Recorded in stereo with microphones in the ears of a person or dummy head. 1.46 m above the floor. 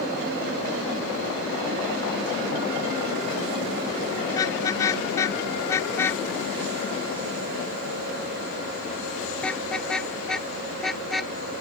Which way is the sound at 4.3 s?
20° left (ahead or behind).